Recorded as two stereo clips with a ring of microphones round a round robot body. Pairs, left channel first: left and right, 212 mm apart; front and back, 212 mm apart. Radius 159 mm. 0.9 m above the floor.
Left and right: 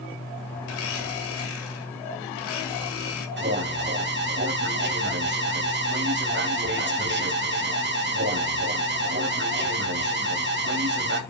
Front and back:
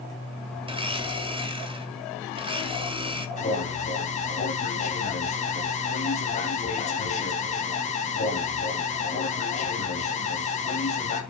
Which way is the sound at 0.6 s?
115° left.